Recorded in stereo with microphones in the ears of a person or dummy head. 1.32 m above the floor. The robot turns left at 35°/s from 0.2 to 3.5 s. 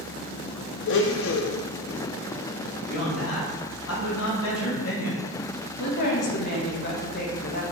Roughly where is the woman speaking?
Left.